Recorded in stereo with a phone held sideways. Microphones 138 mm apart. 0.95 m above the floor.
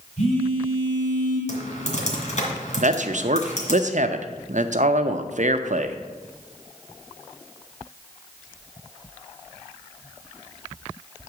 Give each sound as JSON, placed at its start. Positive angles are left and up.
{"t": 0.2, "sound": "a phone buzzing", "side_deg": 45, "distance_m": 4.5}
{"t": 1.5, "sound": "typing on a keyboard", "side_deg": 60, "distance_m": 2.0}
{"t": 2.8, "sound": "a man speaking", "side_deg": -60, "distance_m": 0.6}